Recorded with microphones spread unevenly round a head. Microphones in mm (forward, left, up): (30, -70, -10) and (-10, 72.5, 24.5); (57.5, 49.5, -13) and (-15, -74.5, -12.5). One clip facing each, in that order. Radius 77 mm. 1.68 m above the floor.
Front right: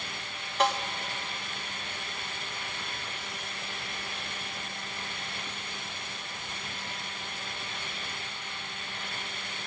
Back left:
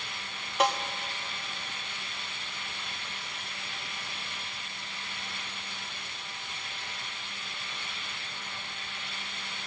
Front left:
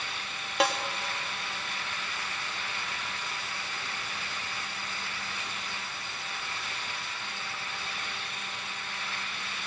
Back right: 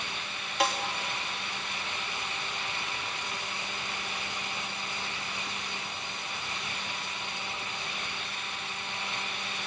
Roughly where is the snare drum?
Ahead left.